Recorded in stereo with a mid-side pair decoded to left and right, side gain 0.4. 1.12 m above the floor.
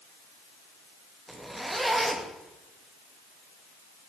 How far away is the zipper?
About 1.8 m.